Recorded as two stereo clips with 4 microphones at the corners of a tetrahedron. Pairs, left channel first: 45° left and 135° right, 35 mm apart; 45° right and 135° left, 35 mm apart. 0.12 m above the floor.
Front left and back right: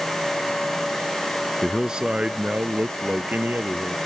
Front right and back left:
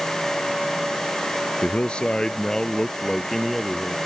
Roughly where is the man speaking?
Ahead right.